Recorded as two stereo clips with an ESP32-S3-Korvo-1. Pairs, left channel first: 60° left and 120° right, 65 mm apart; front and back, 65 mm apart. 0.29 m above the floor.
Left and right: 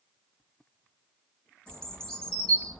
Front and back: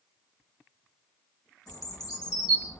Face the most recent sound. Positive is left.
turn(degrees=-20)